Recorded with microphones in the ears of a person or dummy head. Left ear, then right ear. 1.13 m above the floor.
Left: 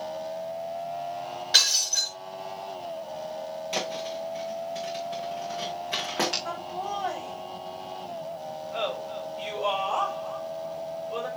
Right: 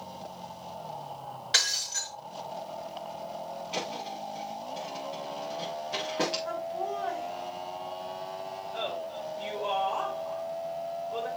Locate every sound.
1.5 s breaking glass: 15° right (ahead or behind), 5 m
3.7 s a thud: 45° left (ahead or behind), 5 m
6.5 s laughter: 60° left (ahead or behind), 5.5 m